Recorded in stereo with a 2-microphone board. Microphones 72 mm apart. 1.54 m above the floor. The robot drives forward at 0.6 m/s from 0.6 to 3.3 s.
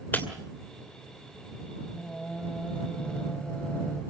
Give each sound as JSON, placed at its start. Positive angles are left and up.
{"t": 0.1, "sound": "breaking glass", "side_deg": 25, "distance_m": 2.5}
{"t": 1.8, "sound": "singing", "side_deg": 10, "distance_m": 3.5}